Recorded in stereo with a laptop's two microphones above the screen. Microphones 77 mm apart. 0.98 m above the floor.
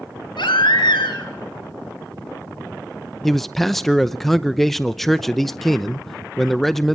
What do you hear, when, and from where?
0.4 s a baby crying: 85° left, 3.5 m
3.2 s a man speaking: 5° left (ahead or behind), 0.6 m